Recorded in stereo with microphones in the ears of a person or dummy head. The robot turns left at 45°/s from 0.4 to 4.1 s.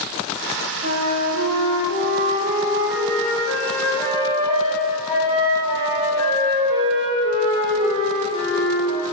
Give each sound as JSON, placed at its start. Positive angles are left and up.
{"t": 0.8, "sound": "a flute", "azimuth_deg": -60, "distance_m": 3.0}